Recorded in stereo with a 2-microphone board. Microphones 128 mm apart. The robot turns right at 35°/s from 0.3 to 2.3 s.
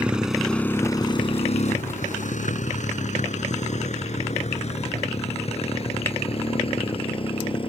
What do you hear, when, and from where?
0.0 s a motorcycle: 10° right (ahead or behind); by 7.7 s 45° left (ahead or behind)